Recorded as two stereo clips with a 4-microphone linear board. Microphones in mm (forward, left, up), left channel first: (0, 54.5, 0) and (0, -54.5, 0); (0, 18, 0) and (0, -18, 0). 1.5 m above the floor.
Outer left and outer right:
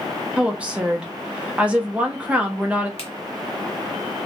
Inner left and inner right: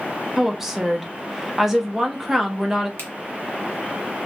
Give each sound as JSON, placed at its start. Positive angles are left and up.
{"t": 0.4, "sound": "a woman speaking", "side_deg": -10, "distance_m": 0.5}
{"t": 3.0, "sound": "a finger snap", "side_deg": 65, "distance_m": 0.8}